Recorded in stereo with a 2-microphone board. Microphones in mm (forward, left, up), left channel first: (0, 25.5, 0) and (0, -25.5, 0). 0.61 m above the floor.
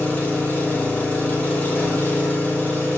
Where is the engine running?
35° left (ahead or behind), 1.7 m.